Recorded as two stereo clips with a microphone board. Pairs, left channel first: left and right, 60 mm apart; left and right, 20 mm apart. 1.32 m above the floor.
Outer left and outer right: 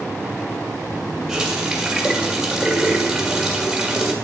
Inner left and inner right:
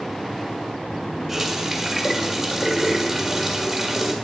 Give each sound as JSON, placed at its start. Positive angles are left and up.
{"t": 1.3, "sound": "a running tap", "side_deg": -5, "distance_m": 1.7}